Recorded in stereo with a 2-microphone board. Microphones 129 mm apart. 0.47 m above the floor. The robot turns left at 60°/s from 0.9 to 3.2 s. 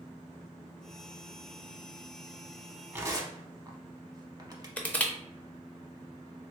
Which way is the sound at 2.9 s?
20° right (ahead or behind).